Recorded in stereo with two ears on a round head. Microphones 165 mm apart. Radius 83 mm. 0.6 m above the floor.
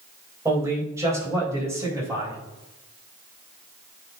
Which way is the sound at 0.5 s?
15° right (ahead or behind).